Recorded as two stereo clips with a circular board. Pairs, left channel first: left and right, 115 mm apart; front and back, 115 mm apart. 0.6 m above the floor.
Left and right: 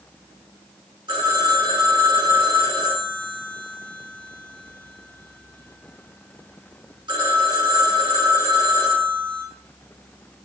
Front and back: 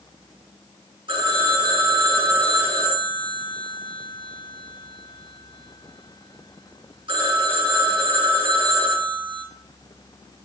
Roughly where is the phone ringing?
Behind right.